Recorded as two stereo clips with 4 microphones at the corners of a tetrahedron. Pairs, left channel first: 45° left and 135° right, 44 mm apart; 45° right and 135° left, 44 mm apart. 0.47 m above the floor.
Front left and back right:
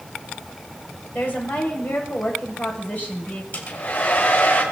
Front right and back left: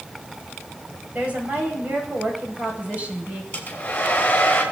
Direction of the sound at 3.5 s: 10° left.